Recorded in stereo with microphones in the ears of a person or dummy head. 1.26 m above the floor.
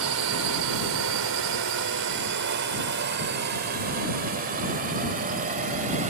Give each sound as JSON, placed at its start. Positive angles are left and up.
{"t": 0.0, "sound": "a drone", "side_deg": -75}